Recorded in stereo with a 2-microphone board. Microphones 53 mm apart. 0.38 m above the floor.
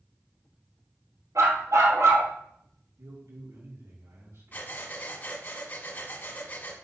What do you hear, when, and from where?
1.4 s a dog barking: 85° right, 3.5 m
3.0 s a man speaking: 65° right (ahead or behind), 4 m
4.5 s breathing: 35° left (ahead or behind), 1.4 m